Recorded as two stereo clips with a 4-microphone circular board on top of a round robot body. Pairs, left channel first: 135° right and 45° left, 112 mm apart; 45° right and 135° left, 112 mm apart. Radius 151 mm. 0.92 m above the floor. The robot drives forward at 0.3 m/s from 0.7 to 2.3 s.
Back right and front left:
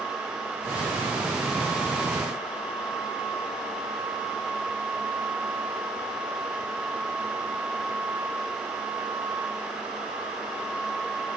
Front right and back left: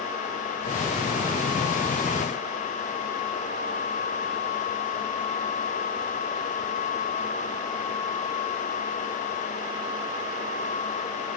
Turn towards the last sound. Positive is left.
No sound to turn to.